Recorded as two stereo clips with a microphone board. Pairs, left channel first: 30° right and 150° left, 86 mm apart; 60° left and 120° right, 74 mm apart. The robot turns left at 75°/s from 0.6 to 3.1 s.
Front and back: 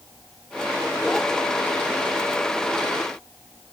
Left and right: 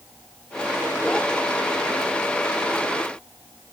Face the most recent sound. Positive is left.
No sound to turn to.